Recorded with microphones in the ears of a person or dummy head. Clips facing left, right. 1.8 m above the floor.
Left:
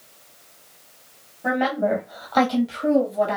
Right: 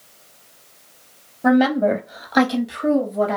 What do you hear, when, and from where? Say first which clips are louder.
1.4 s a woman speaking: right 6 dB; 65° right (ahead or behind), 0.7 m; by 3.4 s 15° left (ahead or behind), 1.4 m